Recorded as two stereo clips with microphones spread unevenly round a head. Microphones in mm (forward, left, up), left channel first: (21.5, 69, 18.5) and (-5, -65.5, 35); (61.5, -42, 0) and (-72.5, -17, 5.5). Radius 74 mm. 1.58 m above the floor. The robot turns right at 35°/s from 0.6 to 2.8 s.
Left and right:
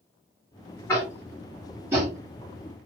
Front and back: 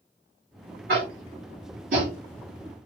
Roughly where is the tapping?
Behind left.